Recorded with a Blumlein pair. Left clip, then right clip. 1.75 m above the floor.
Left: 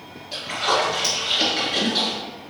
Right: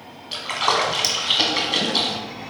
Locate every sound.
0.3 s a splash: 65° right, 1.2 m